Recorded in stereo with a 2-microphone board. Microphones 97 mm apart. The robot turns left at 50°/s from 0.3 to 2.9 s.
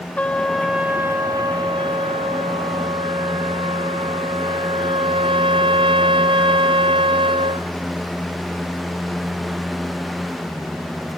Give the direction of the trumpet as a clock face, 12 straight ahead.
11 o'clock.